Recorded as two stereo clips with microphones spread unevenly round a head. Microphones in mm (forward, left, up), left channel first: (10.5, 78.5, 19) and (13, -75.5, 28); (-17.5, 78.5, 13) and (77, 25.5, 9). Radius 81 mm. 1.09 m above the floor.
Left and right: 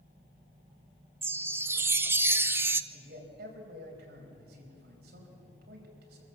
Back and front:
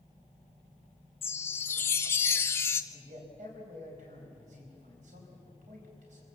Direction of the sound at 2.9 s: 65° right.